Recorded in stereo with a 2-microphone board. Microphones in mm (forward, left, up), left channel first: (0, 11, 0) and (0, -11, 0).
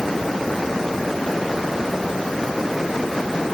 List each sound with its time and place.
Only background noise.